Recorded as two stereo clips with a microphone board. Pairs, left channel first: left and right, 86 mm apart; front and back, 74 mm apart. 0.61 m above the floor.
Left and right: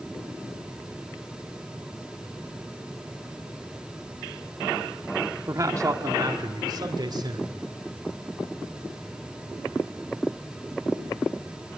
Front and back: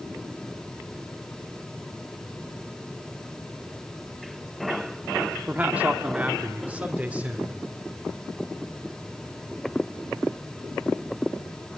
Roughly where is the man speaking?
Behind right.